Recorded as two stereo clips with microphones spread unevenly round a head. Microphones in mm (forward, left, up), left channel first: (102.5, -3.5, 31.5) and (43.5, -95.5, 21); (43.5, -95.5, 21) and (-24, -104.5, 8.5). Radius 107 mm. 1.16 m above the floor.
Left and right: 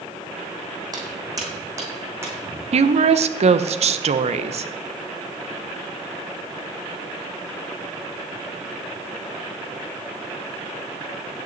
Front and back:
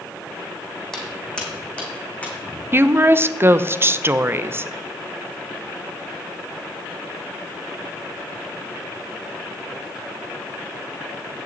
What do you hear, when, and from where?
0.9 s footsteps: 70° right, 3 m; by 2.6 s 55° right, 4 m
2.7 s a woman speaking: 120° right, 0.8 m